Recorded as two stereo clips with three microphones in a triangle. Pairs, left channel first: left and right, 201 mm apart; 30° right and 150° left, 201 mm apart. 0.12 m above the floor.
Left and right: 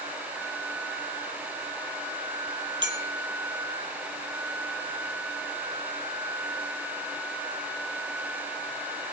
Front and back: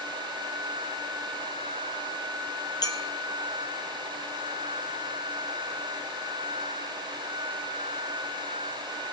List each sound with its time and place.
2.8 s a clink: 100° right, 1.8 m